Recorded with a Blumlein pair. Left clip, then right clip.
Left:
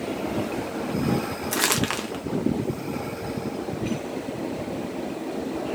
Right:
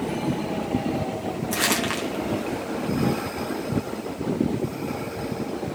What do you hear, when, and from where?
1.5 s crumpling: 10° left, 1.0 m